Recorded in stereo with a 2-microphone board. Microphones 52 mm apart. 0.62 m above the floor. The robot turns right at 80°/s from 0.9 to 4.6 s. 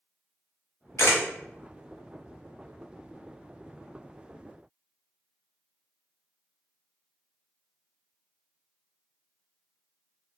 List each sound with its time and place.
1.0 s a camera shutter: 70° left (ahead or behind), 1.0 m; by 1.2 s 80° left, 1.0 m